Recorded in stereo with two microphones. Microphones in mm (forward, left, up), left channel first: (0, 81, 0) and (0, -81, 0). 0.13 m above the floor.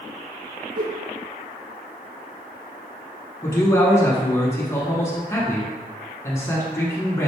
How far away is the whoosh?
About 0.6 m.